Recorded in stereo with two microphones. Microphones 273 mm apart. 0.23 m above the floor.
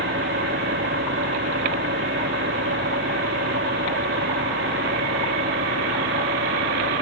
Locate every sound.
0.0 s an engine running: 45° right (ahead or behind)